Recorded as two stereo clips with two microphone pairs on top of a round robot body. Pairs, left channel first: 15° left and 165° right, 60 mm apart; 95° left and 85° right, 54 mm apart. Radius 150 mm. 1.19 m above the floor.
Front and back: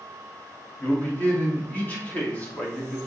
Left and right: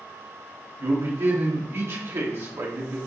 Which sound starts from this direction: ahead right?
A man speaking, at 0.8 s.